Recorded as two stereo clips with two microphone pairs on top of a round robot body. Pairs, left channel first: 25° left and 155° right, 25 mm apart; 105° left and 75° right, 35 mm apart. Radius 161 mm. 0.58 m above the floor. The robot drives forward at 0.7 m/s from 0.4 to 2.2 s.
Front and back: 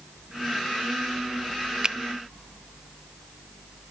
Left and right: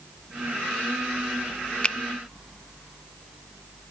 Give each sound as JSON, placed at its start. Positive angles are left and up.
{"t": 1.8, "sound": "a finger snap", "azimuth_deg": 165, "distance_m": 0.7}